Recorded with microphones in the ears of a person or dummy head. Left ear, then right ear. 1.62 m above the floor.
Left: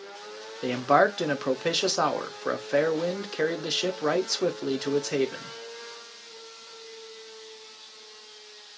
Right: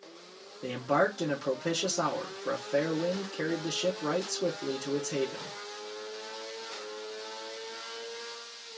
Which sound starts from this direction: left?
A man speaking, at 0.6 s.